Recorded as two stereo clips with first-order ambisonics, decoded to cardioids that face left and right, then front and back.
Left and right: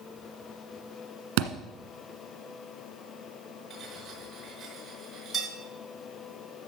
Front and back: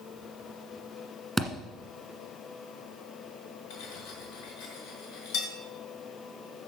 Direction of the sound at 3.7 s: 15° right.